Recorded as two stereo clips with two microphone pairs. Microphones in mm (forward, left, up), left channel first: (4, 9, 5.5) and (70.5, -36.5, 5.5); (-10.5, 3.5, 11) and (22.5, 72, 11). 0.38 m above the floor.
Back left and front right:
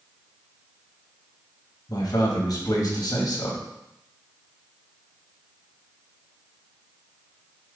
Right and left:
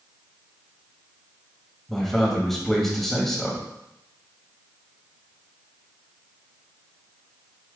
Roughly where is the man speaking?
Behind left.